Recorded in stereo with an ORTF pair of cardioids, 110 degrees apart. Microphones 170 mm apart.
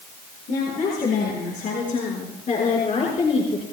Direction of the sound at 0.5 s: 60° left.